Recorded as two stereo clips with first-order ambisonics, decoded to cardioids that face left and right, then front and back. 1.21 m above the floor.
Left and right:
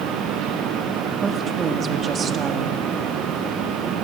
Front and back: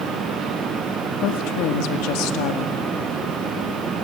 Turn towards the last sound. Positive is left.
turn(degrees=-20)